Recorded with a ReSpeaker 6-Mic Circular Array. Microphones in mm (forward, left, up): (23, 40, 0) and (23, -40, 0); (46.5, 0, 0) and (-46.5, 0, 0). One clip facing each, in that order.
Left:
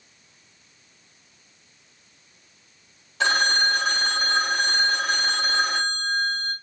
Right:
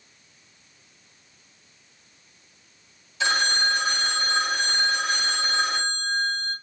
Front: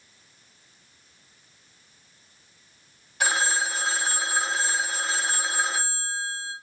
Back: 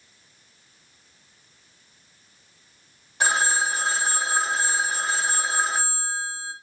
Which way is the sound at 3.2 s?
125° left.